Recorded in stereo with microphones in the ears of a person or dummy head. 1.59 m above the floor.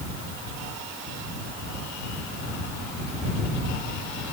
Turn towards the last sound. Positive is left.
No sound to turn to.